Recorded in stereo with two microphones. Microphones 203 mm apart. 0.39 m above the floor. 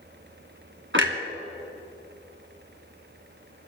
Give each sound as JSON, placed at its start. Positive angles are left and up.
{"t": 0.9, "sound": "a clunk", "side_deg": -70, "distance_m": 1.6}